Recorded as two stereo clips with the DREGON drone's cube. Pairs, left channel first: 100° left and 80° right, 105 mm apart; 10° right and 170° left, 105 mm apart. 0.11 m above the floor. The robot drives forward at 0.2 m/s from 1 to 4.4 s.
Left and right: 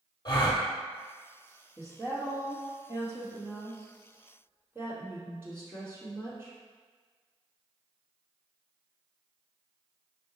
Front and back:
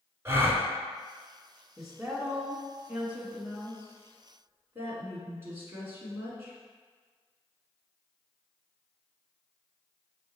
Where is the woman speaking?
100° right, 1.4 m; by 6.5 s 135° right, 1.5 m.